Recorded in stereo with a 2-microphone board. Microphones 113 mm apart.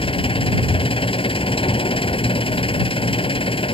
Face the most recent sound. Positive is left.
turn(degrees=50)  # may be behind; listen again after turning